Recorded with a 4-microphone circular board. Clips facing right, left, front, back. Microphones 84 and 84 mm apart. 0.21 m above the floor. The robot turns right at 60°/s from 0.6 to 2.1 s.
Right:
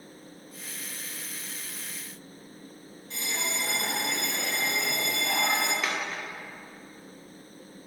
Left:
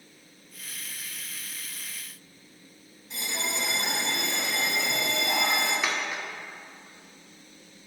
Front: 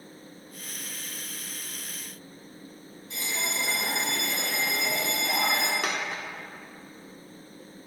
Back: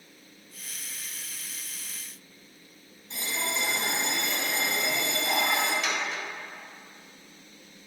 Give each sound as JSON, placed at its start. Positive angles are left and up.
{"t": 3.1, "sound": "a bell", "azimuth_deg": 150, "distance_m": 1.2}
{"t": 5.8, "sound": "a dropped coin", "azimuth_deg": 15, "distance_m": 0.5}